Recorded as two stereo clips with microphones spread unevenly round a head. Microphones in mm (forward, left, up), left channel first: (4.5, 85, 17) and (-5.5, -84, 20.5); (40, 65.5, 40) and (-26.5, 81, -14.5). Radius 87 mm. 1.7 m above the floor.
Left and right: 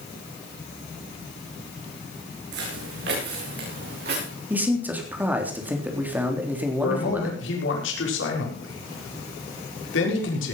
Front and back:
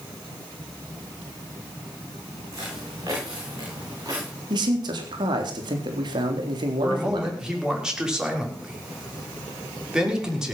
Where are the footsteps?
115° right, 5.5 m; by 4.3 s 120° right, 8 m.